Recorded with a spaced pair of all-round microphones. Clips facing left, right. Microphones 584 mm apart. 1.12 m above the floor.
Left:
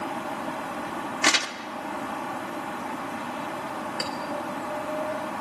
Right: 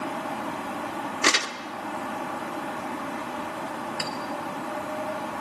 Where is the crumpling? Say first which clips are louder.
Right 2 dB; 15° left (ahead or behind), 1.2 m.